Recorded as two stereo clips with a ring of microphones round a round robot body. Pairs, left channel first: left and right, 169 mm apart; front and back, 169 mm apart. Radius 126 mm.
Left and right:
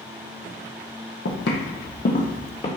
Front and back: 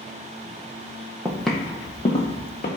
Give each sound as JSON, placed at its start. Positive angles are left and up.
{"t": 1.2, "sound": "footsteps", "azimuth_deg": 105, "distance_m": 0.8}